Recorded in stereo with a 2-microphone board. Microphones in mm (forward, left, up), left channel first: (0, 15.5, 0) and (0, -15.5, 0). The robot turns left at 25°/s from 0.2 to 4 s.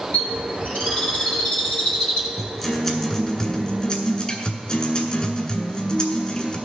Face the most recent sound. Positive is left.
turn(degrees=135)